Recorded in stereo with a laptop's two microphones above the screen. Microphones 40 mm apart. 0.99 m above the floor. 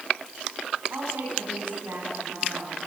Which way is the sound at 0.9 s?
85° right.